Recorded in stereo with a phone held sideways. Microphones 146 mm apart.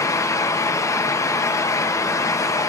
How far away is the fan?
About 0.7 m.